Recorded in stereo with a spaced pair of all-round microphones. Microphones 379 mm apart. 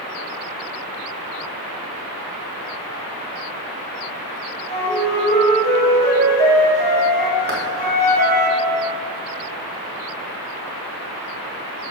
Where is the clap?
85° right, 3 m.